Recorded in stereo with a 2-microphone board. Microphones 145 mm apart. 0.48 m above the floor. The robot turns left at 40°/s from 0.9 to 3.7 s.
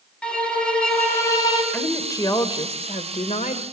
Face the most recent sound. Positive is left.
turn(degrees=90)